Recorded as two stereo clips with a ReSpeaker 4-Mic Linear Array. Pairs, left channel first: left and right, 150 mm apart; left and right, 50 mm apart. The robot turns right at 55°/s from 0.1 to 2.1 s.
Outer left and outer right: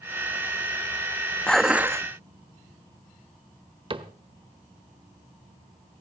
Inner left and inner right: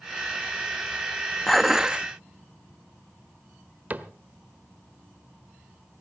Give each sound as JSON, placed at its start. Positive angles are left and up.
{"t": 1.5, "sound": "dishes clattering", "azimuth_deg": 175, "distance_m": 0.6}
{"t": 3.9, "sound": "a cupboard door", "side_deg": -35, "distance_m": 1.1}